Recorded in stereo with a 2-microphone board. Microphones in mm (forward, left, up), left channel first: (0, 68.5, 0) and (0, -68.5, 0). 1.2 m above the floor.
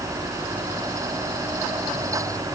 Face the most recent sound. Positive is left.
No sound to turn to.